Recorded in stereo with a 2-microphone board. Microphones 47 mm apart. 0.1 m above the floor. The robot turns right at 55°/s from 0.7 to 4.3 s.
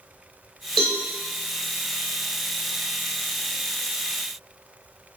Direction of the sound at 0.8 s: Centre (ahead or behind).